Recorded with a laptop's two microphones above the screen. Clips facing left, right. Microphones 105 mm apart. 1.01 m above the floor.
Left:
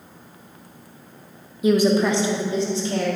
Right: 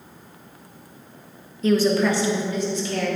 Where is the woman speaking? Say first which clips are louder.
Left 1 dB; 10° left (ahead or behind), 0.8 m; by 3.1 s 30° left (ahead or behind), 1.9 m.